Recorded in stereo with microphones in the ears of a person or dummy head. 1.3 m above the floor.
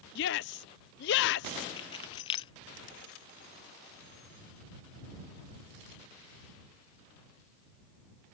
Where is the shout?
55° left (ahead or behind).